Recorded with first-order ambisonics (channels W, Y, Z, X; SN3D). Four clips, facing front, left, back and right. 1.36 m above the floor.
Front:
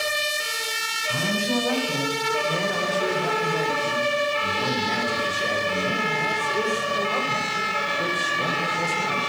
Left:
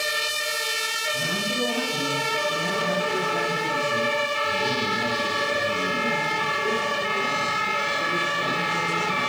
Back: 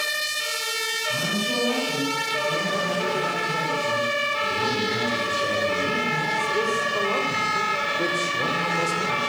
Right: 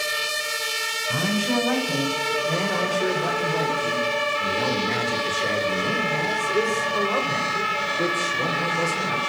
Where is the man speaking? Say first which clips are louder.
Right 2 dB, front 3 dB; 75° right, 6.5 m; by 9.3 s 140° right, 5.5 m.